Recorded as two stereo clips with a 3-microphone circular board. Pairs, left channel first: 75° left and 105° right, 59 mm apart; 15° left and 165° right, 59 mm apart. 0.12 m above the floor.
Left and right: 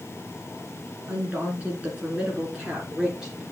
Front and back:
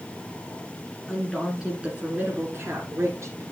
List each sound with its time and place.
1.1 s a woman speaking: 60° right, 1.9 m; by 3.4 s 175° left, 2.5 m